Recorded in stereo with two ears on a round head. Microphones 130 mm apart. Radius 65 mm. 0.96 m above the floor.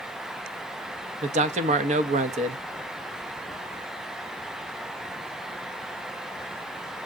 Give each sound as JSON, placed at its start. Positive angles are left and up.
{"t": 1.2, "sound": "a man speaking", "side_deg": -50, "distance_m": 0.8}